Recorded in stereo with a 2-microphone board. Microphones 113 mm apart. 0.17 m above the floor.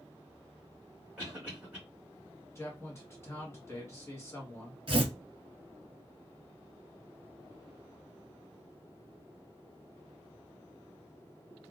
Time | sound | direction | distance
1.2 | a cough | 15° right (ahead or behind) | 1.7 m
2.5 | a man speaking | 25° left (ahead or behind) | 1.5 m
4.9 | tearing paper | 50° right (ahead or behind) | 1.0 m